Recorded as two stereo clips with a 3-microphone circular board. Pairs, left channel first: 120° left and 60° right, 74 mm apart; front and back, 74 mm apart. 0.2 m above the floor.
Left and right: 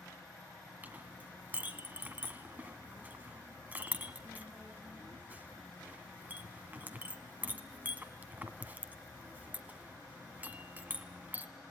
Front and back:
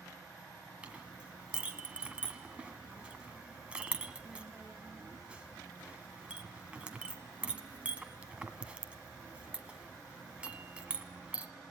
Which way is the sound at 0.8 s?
115° right.